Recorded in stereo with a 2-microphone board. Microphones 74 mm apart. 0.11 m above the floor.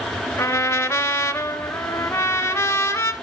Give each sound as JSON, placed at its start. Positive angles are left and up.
{"t": 0.4, "sound": "a trumpet", "side_deg": 30, "distance_m": 1.0}